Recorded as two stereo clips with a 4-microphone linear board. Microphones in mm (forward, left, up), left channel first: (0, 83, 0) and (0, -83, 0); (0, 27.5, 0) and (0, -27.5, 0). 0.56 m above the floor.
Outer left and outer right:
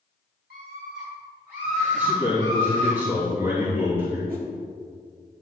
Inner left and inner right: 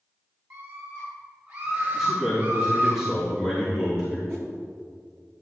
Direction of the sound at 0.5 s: 70° right (ahead or behind).